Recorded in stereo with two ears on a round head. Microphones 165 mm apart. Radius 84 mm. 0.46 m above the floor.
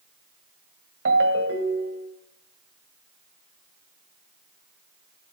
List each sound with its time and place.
1.1 s a ringtone: 70° right (ahead or behind), 1.7 m